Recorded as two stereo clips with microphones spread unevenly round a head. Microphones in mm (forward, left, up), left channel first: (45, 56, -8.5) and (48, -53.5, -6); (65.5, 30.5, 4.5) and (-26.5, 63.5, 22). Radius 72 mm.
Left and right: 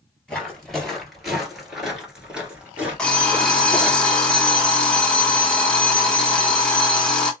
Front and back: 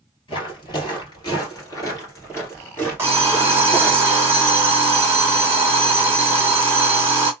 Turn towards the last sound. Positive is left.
turn(degrees=170)